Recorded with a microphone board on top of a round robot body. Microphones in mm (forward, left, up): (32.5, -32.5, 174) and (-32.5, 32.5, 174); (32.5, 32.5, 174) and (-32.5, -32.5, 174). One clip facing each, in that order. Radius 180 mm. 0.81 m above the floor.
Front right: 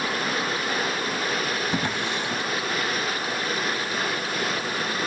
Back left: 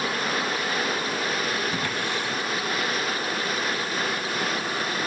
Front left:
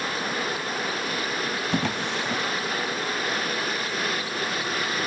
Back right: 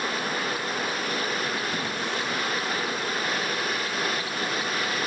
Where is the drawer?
25° left, 1.4 m.